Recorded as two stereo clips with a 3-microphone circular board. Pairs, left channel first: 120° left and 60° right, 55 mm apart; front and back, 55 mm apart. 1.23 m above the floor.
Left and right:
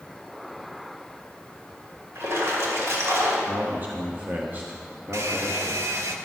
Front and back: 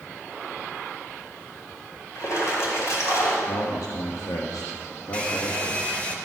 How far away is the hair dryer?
About 1.2 m.